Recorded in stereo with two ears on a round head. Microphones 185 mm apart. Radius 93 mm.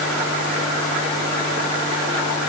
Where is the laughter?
I don't hear laughter.